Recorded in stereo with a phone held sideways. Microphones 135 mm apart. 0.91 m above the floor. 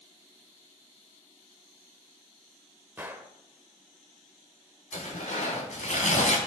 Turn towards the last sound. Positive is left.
turn(degrees=65)  # may be behind; listen again after turning